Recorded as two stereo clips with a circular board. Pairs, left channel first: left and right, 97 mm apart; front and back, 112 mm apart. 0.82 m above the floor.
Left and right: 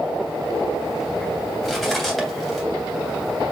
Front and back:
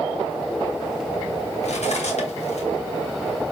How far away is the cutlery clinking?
About 2.5 m.